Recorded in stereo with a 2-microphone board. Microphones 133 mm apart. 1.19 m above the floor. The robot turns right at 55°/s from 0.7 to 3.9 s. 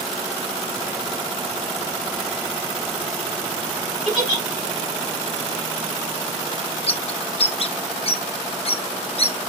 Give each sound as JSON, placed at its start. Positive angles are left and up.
{"t": 4.0, "sound": "a giggle", "side_deg": 30, "distance_m": 3.5}
{"t": 6.9, "sound": "a bird", "side_deg": 45, "distance_m": 0.6}